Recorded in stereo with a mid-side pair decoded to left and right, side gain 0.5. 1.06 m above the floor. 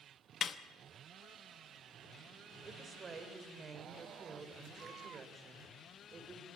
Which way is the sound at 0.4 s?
50° left.